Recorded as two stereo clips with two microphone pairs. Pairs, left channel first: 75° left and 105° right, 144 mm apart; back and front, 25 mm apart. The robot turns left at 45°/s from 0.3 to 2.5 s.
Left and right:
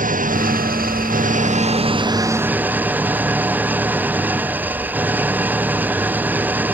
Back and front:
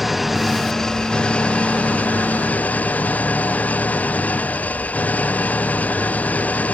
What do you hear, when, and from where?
0.0 s an engine running: 80° right; by 6.7 s straight behind